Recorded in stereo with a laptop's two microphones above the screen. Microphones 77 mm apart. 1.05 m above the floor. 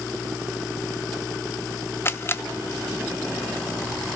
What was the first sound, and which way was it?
A camera shutter, 30° left (ahead or behind).